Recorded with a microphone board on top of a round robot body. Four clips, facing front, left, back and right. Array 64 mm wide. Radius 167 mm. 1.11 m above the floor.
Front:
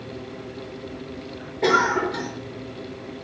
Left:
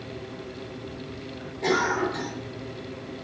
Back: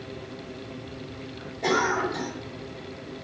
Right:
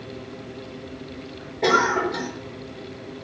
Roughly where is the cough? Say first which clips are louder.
Right 5 dB, front 5 dB; ahead right.